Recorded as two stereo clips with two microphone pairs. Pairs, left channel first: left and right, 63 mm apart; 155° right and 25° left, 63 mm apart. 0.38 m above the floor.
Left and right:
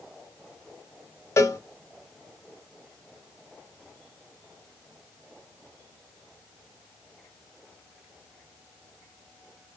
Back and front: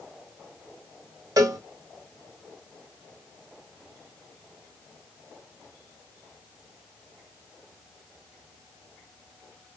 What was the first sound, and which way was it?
A cowbell, 50° left.